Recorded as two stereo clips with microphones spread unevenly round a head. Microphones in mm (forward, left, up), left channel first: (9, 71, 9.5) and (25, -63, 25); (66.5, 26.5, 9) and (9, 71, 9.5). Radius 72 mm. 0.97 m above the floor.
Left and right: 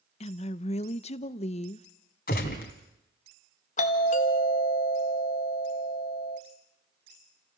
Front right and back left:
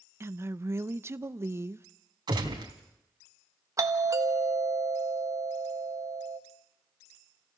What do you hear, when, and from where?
0.2 s a woman speaking: 100° left, 0.7 m
2.3 s a gunshot: 130° left, 2.5 m
3.8 s a doorbell: 105° left, 1.5 m